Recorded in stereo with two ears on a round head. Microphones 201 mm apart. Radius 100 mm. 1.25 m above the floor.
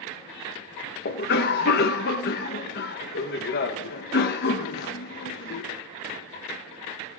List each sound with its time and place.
1.1 s a cough: 45° left (ahead or behind), 1.0 m